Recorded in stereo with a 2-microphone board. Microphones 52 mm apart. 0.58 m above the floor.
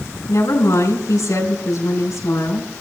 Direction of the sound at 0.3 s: 80° left.